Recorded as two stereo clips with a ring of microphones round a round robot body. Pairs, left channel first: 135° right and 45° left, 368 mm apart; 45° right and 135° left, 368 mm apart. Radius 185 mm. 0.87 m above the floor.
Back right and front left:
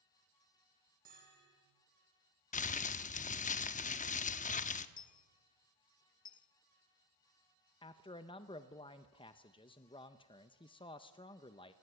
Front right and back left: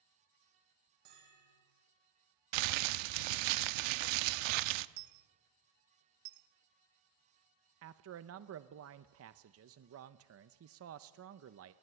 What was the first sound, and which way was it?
A bell, 115° left.